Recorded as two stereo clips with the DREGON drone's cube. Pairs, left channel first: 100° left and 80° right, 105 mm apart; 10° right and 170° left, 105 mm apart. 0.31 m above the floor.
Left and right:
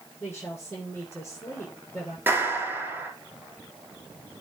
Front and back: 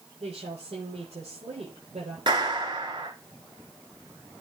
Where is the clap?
150° right, 4.5 m.